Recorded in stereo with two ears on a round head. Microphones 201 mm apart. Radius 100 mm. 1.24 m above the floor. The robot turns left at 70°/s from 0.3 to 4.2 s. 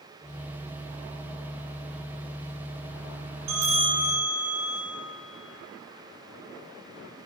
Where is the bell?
85° right, 9.5 m; by 4.8 s 135° right, 9.5 m.